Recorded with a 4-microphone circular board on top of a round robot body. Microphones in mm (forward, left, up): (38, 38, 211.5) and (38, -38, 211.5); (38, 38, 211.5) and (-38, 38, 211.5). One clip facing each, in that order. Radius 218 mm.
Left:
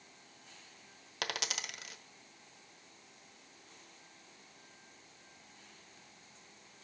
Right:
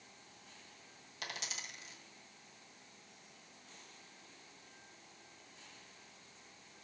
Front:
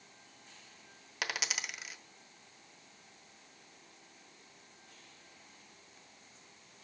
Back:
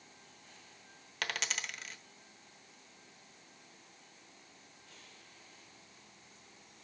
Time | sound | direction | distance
1.2 | a dropped coin | 85° left | 1.1 m